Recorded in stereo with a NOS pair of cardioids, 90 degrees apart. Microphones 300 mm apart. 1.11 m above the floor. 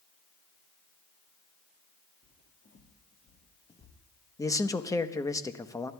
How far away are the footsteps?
About 5 m.